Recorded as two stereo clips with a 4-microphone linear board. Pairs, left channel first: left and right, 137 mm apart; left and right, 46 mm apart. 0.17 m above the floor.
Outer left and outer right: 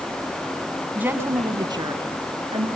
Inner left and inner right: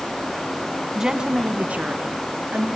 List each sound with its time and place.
0.9 s a woman speaking: 10° right (ahead or behind), 1.6 m; by 2.7 s 45° right (ahead or behind), 3 m